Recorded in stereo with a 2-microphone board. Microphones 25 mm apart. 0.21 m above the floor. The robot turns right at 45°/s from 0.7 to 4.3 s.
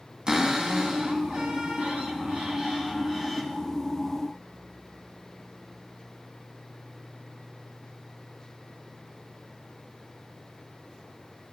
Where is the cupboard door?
130° right, 1.5 m; by 3.4 s 5° right, 1.5 m.